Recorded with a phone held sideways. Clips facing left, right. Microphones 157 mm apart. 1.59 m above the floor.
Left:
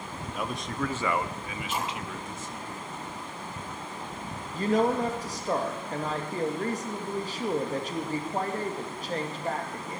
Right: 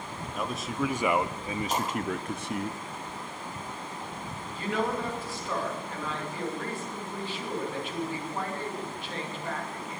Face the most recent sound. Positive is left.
turn(degrees=40)  # may be behind; listen again after turning